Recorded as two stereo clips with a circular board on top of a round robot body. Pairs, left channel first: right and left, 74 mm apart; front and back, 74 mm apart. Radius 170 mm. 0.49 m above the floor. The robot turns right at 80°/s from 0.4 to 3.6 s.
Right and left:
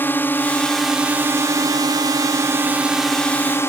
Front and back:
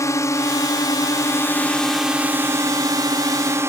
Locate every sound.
0.0 s a drone: 35° right; by 3.7 s 135° right